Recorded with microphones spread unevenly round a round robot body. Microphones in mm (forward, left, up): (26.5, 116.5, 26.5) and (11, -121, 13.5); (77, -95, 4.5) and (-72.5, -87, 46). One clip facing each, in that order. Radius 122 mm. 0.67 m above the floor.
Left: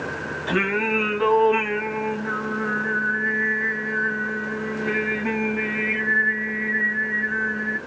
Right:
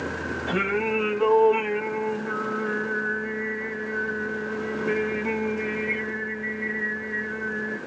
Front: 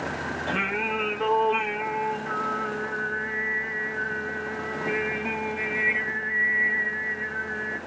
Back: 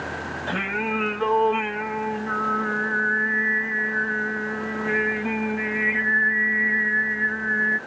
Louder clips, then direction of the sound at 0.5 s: Left 2 dB, back 3 dB; 45° left.